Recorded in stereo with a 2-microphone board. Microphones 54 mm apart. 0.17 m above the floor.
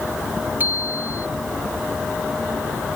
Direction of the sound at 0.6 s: 35° right (ahead or behind).